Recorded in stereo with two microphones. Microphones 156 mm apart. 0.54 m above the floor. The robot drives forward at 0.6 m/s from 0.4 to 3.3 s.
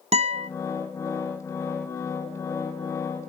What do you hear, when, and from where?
0.1 s a guitar: 45° right (ahead or behind), 0.5 m